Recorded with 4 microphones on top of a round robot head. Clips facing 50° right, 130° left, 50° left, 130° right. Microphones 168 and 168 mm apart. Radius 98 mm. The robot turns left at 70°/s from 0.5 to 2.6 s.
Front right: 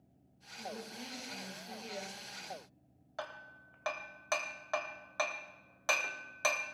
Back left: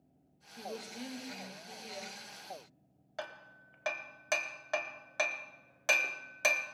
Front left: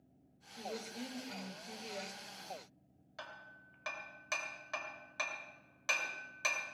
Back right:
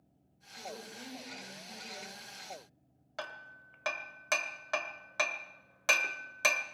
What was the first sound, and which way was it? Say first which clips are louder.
A woman speaking: back left 2 dB, front left 2 dB; 120° left.